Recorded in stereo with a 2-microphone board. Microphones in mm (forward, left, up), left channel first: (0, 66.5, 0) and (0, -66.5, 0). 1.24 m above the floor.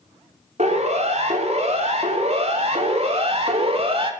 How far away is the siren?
About 5.5 m.